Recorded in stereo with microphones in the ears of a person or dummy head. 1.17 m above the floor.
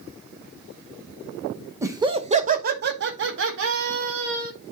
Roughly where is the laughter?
Centre.